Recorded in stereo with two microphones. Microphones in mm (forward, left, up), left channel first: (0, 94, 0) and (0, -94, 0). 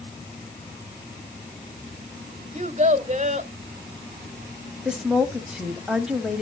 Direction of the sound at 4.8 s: 5° right (ahead or behind).